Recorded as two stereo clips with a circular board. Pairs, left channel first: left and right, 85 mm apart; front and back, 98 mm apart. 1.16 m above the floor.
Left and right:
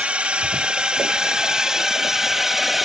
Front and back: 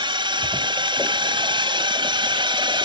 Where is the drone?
165° right; by 2.8 s 175° right.